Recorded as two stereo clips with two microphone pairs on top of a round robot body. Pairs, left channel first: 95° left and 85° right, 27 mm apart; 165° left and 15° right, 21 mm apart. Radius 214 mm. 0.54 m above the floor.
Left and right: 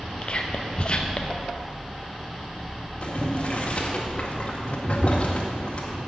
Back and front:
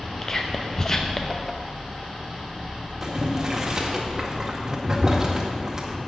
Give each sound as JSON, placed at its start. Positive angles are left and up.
{"t": 0.2, "sound": "whispering", "azimuth_deg": 115, "distance_m": 1.1}
{"t": 3.0, "sound": "boiling", "azimuth_deg": 50, "distance_m": 1.8}